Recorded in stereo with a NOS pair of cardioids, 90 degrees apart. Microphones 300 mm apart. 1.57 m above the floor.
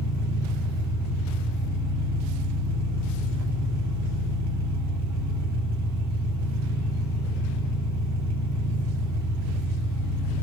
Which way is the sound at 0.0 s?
70° right.